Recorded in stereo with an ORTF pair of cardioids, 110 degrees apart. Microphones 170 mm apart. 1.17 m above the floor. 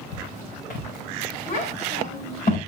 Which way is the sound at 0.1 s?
60° left.